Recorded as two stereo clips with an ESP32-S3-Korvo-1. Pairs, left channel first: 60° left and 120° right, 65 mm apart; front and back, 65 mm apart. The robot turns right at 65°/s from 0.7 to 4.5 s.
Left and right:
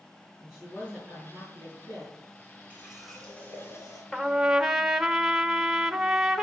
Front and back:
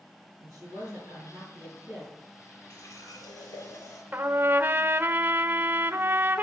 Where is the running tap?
50° right, 5 m; by 4.0 s 35° left, 5 m.